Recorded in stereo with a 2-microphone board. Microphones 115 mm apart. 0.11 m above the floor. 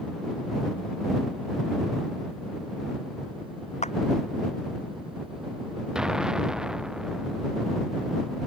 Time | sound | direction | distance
3.8 | a clap | 80° left | ?
6.0 | an explosion | 5° right (ahead or behind) | ?